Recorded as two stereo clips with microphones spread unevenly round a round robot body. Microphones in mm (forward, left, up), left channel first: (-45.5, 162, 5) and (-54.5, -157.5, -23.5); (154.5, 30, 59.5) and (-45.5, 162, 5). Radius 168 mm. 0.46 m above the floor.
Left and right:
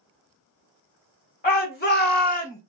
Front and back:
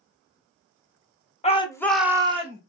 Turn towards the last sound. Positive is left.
turn(degrees=150)